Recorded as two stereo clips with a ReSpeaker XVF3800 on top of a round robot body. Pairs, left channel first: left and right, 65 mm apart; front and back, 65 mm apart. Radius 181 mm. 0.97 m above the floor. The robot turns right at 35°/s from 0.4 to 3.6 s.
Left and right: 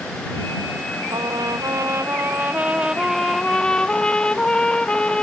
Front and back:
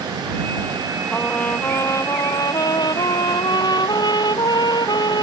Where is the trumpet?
75° right; by 5.2 s 15° left.